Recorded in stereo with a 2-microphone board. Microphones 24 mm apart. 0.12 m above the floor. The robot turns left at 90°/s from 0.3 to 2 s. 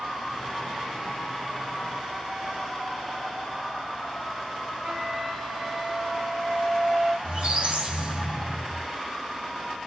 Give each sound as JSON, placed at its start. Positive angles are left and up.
{"t": 4.8, "sound": "a flute", "side_deg": -20, "distance_m": 2.0}
{"t": 7.2, "sound": "a squeak", "side_deg": -50, "distance_m": 1.3}